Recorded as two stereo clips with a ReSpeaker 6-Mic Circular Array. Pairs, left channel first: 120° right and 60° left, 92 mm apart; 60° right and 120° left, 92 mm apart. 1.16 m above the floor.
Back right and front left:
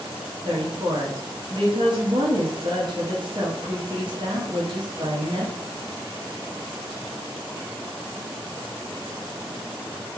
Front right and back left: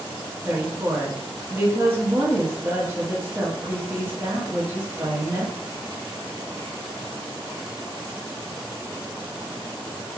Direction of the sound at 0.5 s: 60° left.